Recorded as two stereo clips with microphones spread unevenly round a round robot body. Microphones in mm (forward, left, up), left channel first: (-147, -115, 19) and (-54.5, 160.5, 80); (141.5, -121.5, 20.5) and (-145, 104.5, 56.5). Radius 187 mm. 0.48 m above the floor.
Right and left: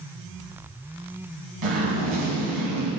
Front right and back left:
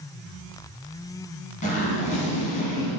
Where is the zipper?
35° left, 1.9 m.